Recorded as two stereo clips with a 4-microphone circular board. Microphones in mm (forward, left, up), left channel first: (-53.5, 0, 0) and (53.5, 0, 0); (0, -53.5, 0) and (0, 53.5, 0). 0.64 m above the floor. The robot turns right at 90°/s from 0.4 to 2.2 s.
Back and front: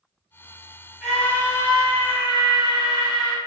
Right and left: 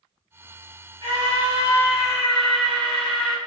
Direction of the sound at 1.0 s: 85° left.